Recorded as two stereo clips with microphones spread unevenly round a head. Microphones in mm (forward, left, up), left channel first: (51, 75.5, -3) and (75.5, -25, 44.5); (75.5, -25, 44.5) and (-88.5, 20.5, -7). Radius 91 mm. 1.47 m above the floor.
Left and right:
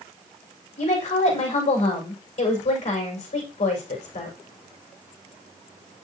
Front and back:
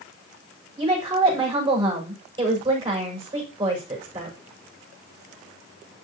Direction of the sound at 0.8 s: 100° left.